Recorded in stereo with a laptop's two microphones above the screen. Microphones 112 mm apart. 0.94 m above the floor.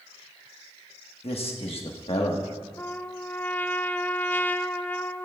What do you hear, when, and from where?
1.2 s a man speaking: 55° left (ahead or behind), 1.3 m
2.8 s a trumpet: 15° left (ahead or behind), 0.6 m